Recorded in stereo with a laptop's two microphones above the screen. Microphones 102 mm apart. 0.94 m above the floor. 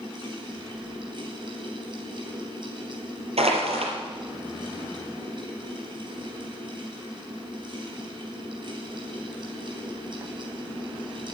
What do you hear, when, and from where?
0.0 s a fan: 50° right (ahead or behind), 3.5 m
3.4 s crushing: 80° right, 4 m